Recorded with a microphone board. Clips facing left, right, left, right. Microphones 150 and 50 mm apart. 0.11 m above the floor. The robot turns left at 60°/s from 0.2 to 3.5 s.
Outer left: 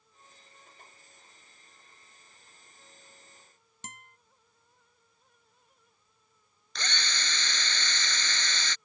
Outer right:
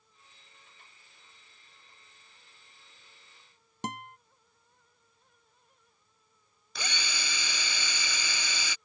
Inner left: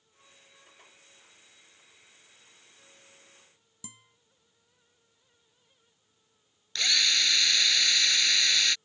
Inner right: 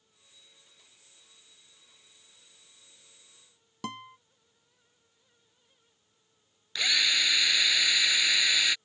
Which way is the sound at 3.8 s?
70° right (ahead or behind).